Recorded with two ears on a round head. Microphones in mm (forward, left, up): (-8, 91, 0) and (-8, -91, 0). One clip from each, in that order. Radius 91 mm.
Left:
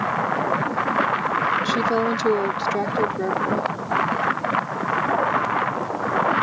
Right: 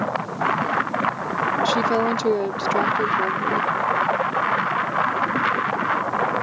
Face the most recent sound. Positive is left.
turn(degrees=-10)  # may be behind; listen again after turning